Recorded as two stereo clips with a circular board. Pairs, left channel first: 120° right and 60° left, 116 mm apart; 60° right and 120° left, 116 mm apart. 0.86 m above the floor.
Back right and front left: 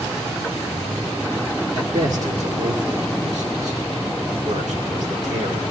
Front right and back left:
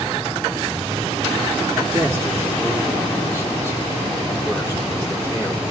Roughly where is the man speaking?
Ahead left.